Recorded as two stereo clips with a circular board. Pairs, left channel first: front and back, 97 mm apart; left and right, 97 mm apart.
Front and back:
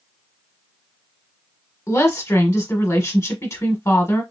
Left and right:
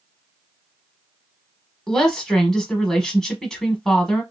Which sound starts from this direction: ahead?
A woman speaking, at 1.9 s.